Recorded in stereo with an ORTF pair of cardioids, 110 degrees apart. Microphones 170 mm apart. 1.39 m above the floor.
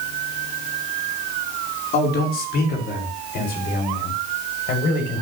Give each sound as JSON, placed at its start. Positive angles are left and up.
{"t": 1.9, "sound": "a man speaking", "azimuth_deg": 70, "distance_m": 4.5}